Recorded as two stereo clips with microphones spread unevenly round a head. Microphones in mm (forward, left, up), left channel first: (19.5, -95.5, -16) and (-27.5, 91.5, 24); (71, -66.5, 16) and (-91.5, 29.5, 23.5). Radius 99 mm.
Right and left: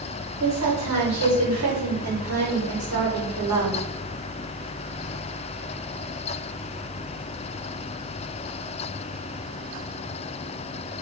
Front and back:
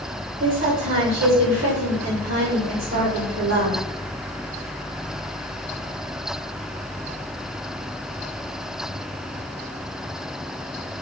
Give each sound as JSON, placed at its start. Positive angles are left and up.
{"t": 0.4, "sound": "a woman speaking", "azimuth_deg": 105, "distance_m": 1.1}